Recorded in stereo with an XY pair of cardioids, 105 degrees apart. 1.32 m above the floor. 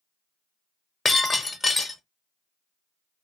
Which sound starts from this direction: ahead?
Breaking glass, at 1.1 s.